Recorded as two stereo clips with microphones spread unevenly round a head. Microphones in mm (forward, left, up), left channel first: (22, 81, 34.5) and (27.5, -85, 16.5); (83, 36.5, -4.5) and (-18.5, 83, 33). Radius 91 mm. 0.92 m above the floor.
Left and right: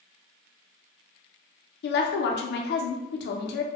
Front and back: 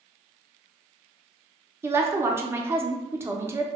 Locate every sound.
1.8 s a woman speaking: 75° left, 0.5 m